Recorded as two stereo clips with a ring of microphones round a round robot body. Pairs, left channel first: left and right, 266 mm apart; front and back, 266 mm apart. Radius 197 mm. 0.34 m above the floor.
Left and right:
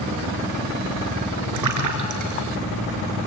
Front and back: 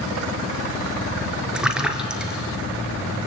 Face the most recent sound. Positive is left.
turn(degrees=-95)